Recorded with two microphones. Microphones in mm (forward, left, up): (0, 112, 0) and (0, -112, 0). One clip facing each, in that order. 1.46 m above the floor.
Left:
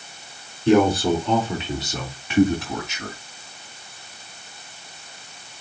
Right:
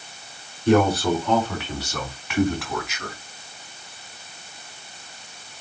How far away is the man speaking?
About 4.5 m.